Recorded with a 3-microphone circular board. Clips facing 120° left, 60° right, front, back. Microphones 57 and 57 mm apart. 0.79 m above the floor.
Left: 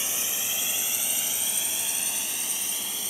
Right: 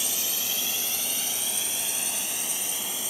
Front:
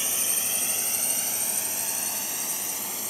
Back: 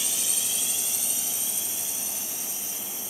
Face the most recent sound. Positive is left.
turn(degrees=25)